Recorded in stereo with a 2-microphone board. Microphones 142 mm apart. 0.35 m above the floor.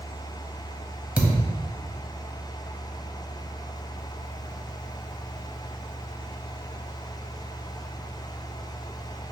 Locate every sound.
1.2 s a thud: 10° right (ahead or behind), 1.0 m